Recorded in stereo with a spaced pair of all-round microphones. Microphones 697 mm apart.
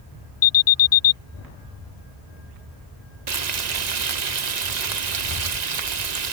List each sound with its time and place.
0.4 s an alarm: 60° left (ahead or behind)
3.3 s frying: 70° right (ahead or behind)